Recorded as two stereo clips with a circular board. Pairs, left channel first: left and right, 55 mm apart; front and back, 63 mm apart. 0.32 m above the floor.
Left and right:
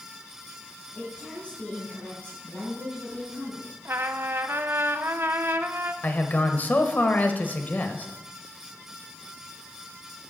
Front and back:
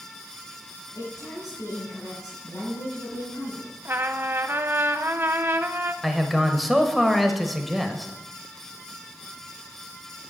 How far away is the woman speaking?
About 6 m.